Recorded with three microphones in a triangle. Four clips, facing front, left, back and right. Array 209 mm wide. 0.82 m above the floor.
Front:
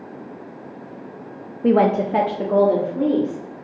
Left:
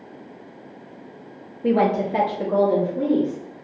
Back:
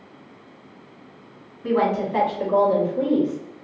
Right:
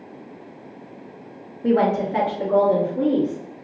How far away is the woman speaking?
About 0.7 m.